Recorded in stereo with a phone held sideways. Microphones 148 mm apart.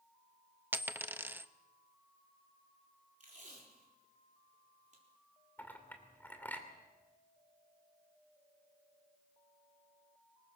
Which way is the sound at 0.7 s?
10° right (ahead or behind).